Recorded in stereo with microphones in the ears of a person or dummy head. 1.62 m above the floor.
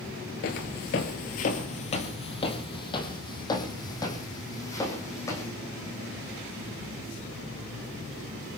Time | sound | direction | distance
0.4 | footsteps | 40° left (ahead or behind) | 1.9 m